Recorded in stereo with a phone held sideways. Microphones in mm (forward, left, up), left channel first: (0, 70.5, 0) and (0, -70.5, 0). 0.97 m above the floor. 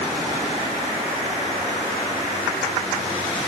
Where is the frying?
No frying in this recording.